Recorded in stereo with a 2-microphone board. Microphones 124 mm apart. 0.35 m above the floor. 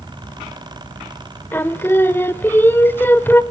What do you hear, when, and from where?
1.5 s singing: 15° left (ahead or behind), 0.8 m